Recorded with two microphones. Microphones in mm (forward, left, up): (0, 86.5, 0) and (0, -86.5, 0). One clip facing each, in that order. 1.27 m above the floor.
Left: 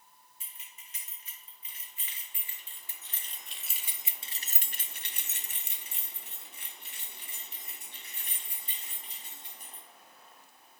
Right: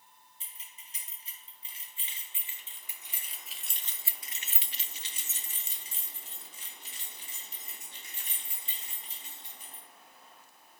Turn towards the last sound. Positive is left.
turn(degrees=55)  # may be behind; listen again after turning